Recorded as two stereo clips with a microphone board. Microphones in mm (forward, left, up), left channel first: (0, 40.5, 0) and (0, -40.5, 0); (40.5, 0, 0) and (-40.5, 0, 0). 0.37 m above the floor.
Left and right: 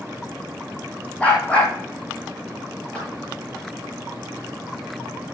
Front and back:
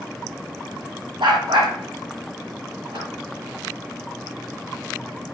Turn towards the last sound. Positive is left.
turn(degrees=170)